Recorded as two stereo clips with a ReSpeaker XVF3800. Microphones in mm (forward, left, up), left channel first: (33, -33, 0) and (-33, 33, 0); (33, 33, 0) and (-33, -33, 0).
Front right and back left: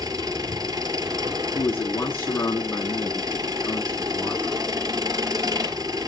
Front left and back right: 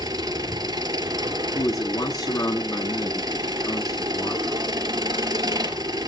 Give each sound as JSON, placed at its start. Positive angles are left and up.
{"t": 0.0, "sound": "an engine running", "azimuth_deg": 180, "distance_m": 2.0}
{"t": 1.6, "sound": "a man speaking", "azimuth_deg": 10, "distance_m": 2.5}